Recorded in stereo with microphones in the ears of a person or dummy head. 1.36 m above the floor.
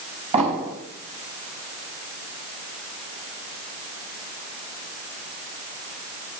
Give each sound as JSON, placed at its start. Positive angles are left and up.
{"t": 0.3, "sound": "an explosion", "side_deg": -40, "distance_m": 4.5}